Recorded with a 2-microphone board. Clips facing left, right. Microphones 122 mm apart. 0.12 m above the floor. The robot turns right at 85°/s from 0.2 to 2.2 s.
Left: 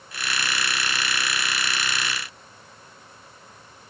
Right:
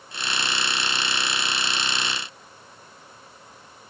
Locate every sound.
Only background noise.